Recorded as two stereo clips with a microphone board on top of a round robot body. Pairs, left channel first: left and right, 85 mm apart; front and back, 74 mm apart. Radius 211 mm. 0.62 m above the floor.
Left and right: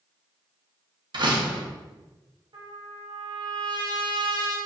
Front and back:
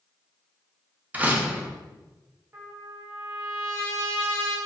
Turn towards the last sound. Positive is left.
turn(degrees=-115)